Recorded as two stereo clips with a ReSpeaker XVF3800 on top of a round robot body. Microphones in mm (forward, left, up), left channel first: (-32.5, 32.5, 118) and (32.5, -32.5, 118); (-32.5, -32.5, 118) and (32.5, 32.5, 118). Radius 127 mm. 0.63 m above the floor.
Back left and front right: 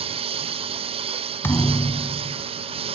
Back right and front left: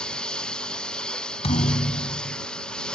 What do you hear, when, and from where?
0.0 s a lawn mower: 55° right
1.4 s a thud: 160° right